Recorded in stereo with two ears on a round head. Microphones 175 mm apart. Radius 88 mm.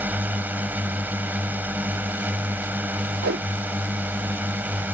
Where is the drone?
10° right (ahead or behind).